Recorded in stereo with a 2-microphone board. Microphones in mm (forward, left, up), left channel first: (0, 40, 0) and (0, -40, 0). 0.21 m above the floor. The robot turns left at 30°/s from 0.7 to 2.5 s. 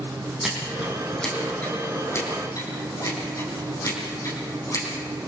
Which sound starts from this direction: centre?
Scissors, at 0.4 s.